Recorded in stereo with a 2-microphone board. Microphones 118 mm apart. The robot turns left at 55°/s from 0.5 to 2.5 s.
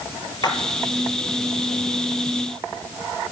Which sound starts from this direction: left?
A splash, at 0.4 s.